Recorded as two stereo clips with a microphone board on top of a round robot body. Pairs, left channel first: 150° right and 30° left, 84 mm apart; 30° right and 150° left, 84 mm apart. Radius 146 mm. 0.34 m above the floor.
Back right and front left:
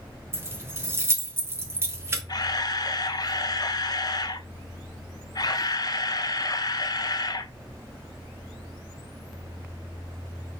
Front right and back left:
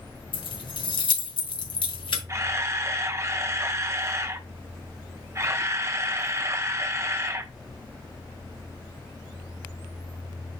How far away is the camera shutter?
About 1.5 m.